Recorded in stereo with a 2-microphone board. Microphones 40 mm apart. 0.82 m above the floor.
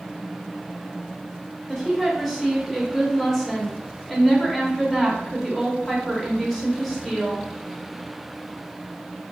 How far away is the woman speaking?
About 1.3 m.